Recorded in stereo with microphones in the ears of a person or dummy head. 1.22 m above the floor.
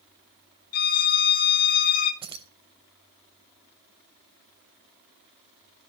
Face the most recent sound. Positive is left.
turn(degrees=-25)  # may be behind; listen again after turning